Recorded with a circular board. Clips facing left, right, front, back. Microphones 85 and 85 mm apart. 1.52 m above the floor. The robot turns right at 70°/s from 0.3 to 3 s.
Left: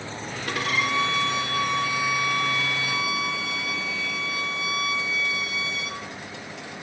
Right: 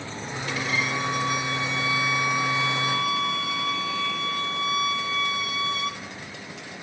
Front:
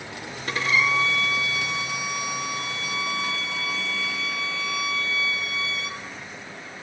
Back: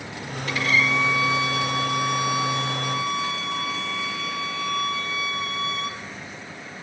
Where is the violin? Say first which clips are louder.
Left 2 dB, even; 55° left, 2.5 m; by 6.0 s 125° right, 2.5 m.